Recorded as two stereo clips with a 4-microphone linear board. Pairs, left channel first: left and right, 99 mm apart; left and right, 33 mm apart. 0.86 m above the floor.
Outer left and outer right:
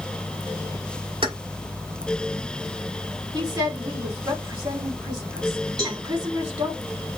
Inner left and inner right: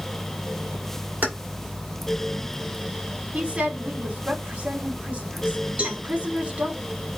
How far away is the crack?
I don't hear a crack.